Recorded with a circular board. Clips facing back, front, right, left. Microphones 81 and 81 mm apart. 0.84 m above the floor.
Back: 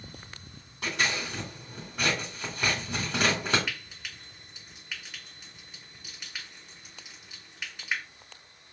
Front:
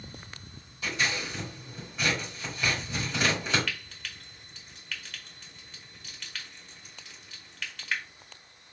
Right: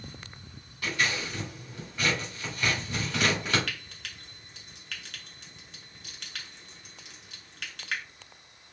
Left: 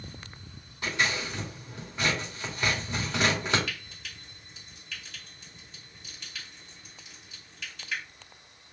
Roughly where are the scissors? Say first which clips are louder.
Back 1 dB, left 1 dB; behind left.